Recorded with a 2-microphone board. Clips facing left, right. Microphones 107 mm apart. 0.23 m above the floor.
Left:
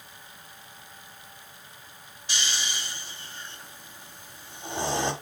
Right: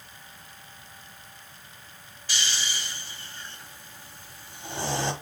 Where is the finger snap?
No finger snap in this recording.